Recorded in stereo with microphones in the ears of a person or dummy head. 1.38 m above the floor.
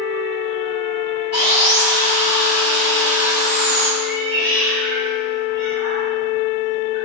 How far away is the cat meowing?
About 1.1 m.